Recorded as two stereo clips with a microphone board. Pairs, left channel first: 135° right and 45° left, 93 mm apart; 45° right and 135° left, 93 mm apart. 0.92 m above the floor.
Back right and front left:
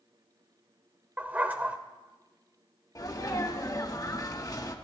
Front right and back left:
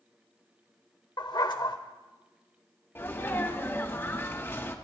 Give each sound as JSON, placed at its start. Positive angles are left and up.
{"t": 1.2, "sound": "a dog barking", "azimuth_deg": -25, "distance_m": 0.9}
{"t": 3.0, "sound": "a sneeze", "azimuth_deg": -100, "distance_m": 1.4}